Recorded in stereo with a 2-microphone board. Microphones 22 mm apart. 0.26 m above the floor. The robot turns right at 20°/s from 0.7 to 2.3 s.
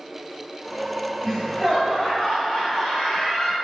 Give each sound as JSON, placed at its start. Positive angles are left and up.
{"t": 1.2, "sound": "laughter", "side_deg": 20, "distance_m": 1.6}